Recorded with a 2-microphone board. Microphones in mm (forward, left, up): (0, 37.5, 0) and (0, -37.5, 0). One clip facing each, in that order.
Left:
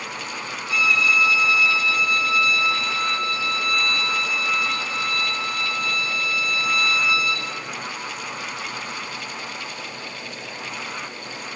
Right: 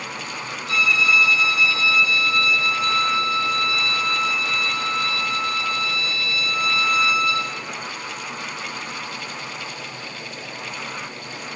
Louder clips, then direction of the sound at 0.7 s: Right 1 dB; 75° right (ahead or behind).